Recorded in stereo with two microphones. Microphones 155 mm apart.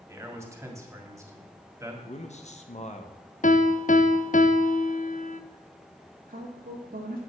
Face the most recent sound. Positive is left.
turn(degrees=-80)